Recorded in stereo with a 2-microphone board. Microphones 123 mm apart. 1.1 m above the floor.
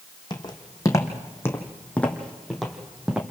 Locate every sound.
0.3 s footsteps: 40° left (ahead or behind), 2.5 m; by 3.2 s 10° right (ahead or behind), 2.5 m